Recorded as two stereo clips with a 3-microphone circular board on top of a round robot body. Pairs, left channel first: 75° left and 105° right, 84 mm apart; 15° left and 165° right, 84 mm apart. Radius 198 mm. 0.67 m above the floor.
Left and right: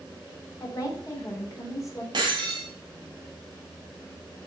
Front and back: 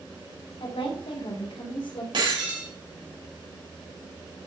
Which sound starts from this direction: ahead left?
A woman speaking, at 0.6 s.